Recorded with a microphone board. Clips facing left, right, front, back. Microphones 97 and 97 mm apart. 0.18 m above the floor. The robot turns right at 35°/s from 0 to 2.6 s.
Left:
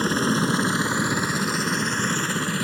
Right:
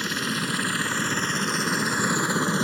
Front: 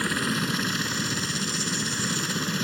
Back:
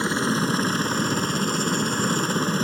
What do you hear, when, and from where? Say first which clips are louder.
0.0 s a helicopter: left 7 dB, back 4 dB; 120° left; by 2.7 s 145° right